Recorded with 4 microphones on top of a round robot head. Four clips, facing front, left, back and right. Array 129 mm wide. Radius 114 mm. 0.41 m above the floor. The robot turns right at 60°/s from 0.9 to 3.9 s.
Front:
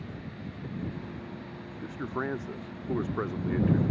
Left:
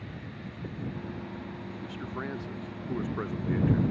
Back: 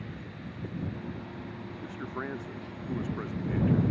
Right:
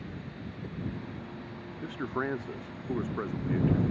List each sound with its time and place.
1.8 s a man speaking: 85° right; by 3.8 s 35° left